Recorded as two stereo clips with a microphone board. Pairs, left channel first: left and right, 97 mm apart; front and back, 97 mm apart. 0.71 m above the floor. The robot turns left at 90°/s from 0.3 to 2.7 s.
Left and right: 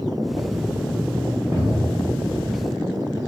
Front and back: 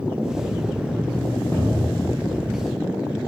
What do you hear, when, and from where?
1.5 s a cupboard door: 50° right, 0.9 m; by 2.1 s 100° right, 0.9 m